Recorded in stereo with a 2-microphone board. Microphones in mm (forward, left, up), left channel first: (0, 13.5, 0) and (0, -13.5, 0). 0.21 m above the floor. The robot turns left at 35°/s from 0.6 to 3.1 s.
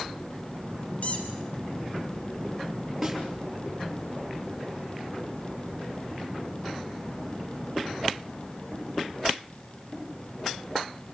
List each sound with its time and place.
1.0 s a squeak: 70° left (ahead or behind), 3.5 m; by 1.3 s 75° left (ahead or behind), 3.5 m
3.0 s a snare drum: 10° right (ahead or behind), 3.5 m; by 3.2 s 5° right (ahead or behind), 3.5 m